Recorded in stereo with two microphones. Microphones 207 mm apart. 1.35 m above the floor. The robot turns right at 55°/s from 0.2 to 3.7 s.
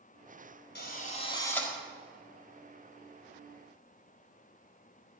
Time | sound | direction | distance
0.8 | a drill | 125° left | 4.5 m